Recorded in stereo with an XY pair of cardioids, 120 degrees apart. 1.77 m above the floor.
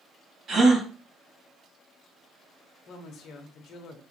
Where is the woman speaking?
55° left, 1.0 m.